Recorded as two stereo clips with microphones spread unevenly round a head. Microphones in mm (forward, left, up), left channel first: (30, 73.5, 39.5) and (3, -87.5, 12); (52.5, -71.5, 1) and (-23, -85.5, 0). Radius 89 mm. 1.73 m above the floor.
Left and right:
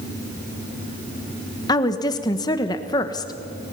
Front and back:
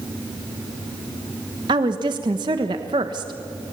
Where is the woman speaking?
145° left, 1.4 m.